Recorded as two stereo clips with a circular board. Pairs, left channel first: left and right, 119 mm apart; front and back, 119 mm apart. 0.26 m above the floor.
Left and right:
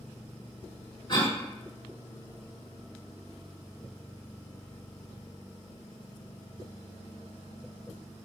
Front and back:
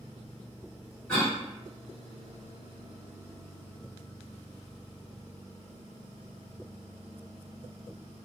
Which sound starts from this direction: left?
A cough, at 1.1 s.